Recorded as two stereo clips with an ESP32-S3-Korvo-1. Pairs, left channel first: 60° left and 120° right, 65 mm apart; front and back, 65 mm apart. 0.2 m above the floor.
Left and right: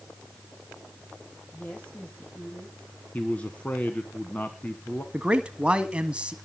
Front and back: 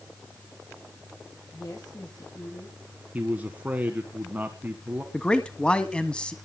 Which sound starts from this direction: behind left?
A man speaking, at 3.1 s.